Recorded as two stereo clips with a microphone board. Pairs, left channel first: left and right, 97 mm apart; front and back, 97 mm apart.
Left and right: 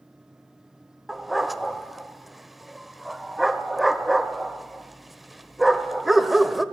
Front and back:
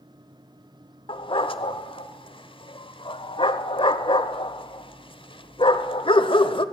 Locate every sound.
1.1 s a dog barking: straight ahead, 0.9 m